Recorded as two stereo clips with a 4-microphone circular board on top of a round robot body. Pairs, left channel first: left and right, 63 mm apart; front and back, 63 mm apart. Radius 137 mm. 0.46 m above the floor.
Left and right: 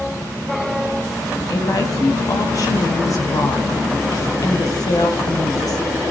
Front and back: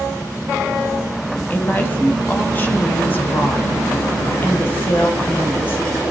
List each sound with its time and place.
1.5 s a woman speaking: 60° left, 4.5 m